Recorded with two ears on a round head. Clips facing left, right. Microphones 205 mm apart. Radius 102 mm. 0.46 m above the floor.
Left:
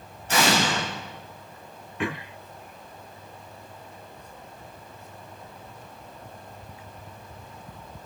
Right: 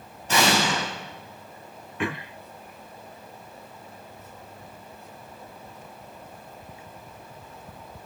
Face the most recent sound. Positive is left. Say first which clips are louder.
# even
turn(degrees=-65)  # may be behind; listen again after turning